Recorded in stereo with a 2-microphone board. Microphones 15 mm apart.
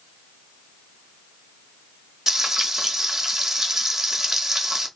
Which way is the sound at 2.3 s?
35° right (ahead or behind).